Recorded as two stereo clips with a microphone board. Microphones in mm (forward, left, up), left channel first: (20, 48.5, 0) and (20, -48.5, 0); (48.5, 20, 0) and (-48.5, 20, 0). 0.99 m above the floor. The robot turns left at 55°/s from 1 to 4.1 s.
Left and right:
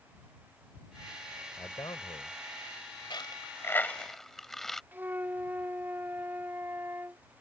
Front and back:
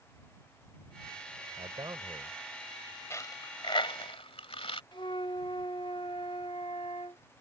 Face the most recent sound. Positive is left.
turn(degrees=-20)